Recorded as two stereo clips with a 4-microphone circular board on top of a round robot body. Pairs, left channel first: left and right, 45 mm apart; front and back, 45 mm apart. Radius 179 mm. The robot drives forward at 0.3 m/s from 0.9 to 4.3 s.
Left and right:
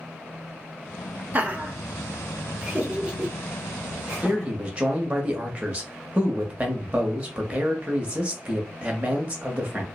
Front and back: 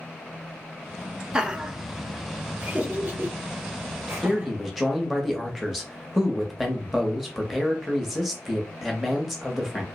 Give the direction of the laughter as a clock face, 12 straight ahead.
4 o'clock.